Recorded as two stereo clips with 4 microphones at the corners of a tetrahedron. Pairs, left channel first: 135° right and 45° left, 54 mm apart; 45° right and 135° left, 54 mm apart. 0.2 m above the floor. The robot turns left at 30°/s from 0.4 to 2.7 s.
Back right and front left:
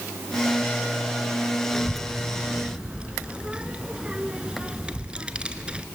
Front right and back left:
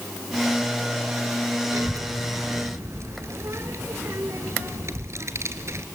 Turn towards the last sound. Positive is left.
turn(degrees=115)